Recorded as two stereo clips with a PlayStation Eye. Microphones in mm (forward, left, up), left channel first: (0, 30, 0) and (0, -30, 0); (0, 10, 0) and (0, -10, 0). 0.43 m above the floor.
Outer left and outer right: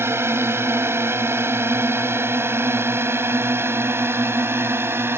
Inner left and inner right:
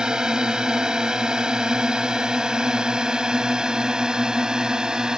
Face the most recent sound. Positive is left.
turn(degrees=-45)  # may be behind; listen again after turning